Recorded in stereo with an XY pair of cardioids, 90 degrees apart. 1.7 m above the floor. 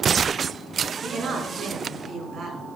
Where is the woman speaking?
70° right, 4 m.